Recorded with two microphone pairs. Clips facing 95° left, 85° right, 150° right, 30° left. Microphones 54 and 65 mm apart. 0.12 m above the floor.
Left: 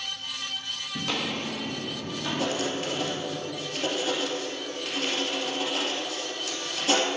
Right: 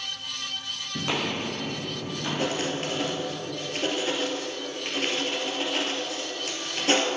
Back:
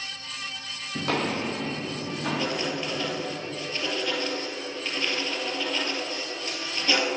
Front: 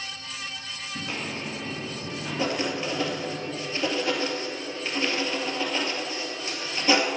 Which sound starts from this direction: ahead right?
Writing, at 2.4 s.